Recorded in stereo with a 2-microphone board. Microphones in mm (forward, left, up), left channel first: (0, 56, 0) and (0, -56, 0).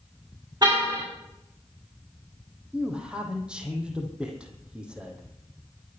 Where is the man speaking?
10° right (ahead or behind), 4 m.